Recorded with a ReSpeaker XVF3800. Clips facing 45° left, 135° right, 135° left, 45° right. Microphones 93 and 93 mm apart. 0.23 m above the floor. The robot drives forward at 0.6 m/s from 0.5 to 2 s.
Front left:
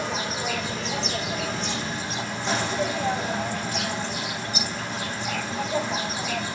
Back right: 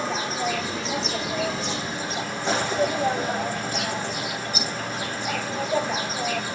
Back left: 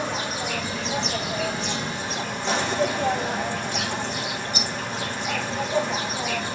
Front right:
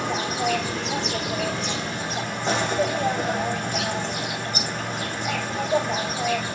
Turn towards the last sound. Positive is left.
turn(degrees=-90)